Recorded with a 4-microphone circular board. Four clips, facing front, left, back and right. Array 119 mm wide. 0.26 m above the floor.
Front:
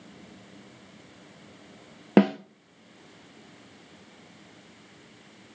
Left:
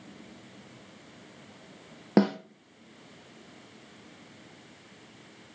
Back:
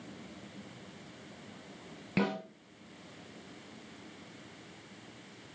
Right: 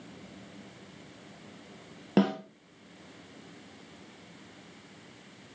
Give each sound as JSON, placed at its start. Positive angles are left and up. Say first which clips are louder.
{"t": 2.2, "sound": "a snare drum", "louder": "left 2 dB, front 12 dB", "azimuth_deg": 20, "distance_m": 1.7}